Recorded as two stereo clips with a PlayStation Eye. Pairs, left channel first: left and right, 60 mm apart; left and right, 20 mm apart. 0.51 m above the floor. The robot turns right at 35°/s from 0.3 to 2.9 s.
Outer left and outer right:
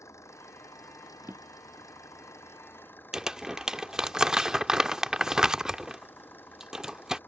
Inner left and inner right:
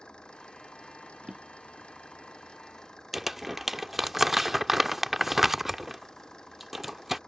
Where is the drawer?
45° right (ahead or behind); by 1.9 s 20° right (ahead or behind).